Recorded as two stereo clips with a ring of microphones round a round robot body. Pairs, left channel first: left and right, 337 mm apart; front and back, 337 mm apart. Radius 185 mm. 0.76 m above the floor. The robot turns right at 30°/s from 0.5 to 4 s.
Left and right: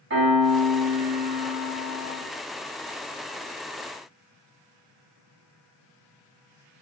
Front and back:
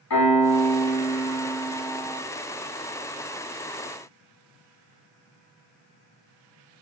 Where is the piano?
35° right, 1.8 m; by 2.2 s 15° left, 1.8 m.